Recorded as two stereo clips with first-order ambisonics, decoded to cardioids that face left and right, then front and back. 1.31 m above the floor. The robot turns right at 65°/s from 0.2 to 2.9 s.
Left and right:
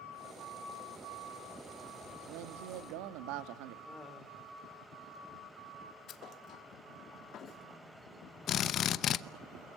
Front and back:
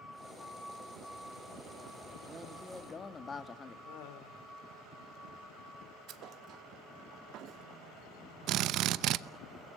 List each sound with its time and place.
2.3 s a man speaking: 115° right, 2.0 m; by 3.8 s 70° right, 2.0 m
3.9 s laughter: 10° right, 4 m
6.1 s a thud: 140° left, 1.5 m
8.5 s a drill: 140° left, 0.8 m